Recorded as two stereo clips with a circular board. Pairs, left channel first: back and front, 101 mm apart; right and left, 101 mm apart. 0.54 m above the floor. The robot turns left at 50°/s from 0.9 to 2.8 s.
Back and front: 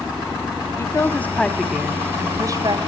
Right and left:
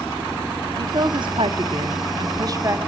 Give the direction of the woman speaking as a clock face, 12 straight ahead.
8 o'clock.